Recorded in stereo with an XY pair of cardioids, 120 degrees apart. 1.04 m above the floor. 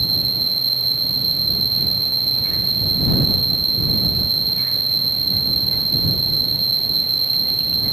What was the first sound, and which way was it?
An insect, 15° right.